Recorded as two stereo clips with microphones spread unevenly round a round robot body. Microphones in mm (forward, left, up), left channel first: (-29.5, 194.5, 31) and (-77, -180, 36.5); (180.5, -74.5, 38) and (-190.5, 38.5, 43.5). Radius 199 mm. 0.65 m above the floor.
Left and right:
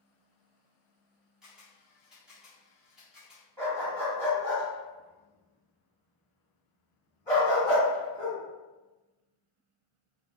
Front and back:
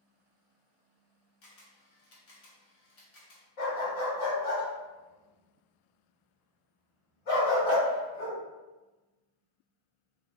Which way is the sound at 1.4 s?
10° right.